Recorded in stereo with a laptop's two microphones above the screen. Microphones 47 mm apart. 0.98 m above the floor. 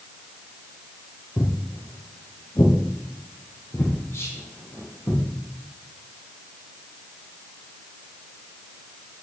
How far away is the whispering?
About 2.5 m.